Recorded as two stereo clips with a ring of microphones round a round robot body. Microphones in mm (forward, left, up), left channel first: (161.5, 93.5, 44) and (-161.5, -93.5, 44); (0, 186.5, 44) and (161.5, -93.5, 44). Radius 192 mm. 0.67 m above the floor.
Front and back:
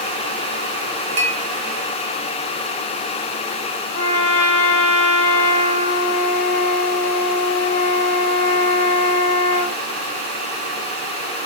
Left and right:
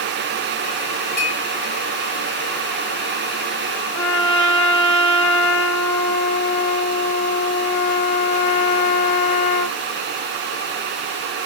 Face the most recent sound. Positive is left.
turn(degrees=105)